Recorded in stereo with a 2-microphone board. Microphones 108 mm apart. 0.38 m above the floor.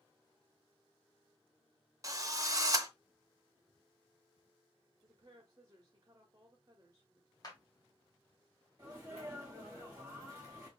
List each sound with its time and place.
2.0 s a drill: 35° right (ahead or behind), 0.6 m
5.0 s a woman speaking: 35° right (ahead or behind), 1.1 m
7.4 s a clap: 35° left (ahead or behind), 1.3 m
8.8 s a sneeze: 20° right (ahead or behind), 1.9 m